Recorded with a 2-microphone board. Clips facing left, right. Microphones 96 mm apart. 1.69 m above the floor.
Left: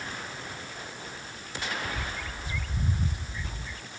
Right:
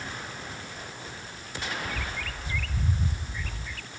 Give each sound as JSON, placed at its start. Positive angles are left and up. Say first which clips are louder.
{"t": 1.9, "sound": "a bird", "louder": "even", "side_deg": 20}